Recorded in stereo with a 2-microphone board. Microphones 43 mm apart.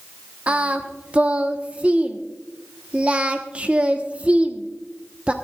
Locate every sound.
0.5 s singing: 30° right (ahead or behind), 1.1 m